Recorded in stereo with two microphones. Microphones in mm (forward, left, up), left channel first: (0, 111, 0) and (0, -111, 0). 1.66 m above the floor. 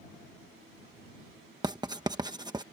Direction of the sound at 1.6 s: 20° right (ahead or behind).